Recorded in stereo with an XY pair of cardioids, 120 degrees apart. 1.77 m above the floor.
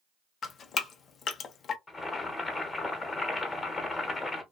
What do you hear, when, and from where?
0.4 s dripping: 45° left, 0.6 m
1.9 s boiling: 20° left, 1.1 m